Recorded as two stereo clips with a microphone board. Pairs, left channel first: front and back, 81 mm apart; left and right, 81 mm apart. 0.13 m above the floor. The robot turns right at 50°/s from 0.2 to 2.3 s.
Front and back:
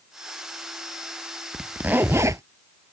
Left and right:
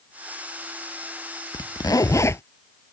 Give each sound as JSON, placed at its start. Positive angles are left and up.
{"t": 1.5, "sound": "a zipper", "azimuth_deg": 100}